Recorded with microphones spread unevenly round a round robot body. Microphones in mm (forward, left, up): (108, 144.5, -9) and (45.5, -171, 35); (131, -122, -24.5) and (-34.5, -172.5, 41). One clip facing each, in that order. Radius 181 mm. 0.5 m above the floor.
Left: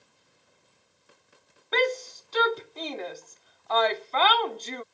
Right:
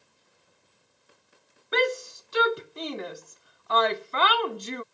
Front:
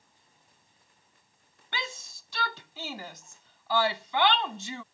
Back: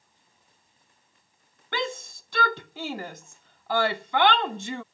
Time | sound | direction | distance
1.7 | a shout | straight behind | ?